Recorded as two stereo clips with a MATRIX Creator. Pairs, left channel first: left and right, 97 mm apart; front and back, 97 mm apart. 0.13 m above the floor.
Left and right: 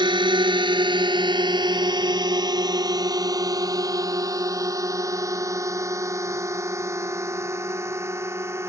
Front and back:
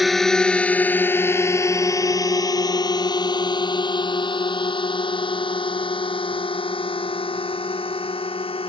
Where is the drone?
90° right; by 8.7 s 25° right.